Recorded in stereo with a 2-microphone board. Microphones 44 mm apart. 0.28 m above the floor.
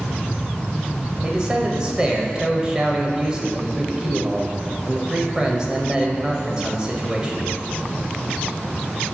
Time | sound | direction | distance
1.2 | a man speaking | 15° right (ahead or behind) | 0.9 m